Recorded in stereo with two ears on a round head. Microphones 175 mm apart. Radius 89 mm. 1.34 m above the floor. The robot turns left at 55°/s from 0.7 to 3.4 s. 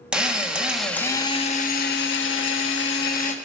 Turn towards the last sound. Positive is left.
turn(degrees=35)